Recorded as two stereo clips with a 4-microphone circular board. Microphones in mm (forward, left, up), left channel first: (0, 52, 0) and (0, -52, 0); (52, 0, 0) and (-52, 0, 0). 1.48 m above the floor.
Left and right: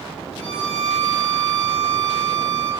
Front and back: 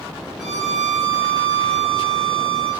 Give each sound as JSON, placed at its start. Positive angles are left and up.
{"t": 0.4, "sound": "a violin", "azimuth_deg": -90, "distance_m": 2.5}